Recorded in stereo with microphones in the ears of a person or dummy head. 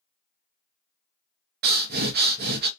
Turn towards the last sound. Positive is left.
turn(degrees=-55)  # may be behind; listen again after turning